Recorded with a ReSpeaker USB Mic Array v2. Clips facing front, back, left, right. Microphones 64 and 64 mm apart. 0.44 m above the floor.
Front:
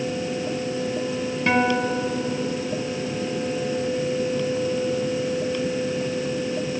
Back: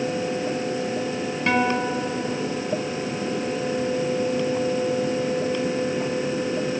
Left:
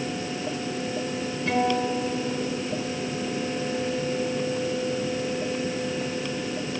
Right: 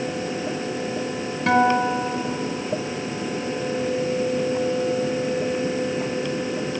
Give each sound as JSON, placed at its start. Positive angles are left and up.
{"t": 1.5, "sound": "a guitar", "azimuth_deg": -95, "distance_m": 2.5}